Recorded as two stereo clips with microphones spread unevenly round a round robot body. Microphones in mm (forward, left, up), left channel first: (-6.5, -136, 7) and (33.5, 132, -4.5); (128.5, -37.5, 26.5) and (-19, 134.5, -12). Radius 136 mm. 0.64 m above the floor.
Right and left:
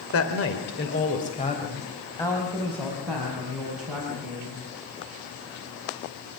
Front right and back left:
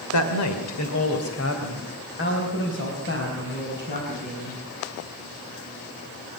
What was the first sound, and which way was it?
A woman speaking, 65° right.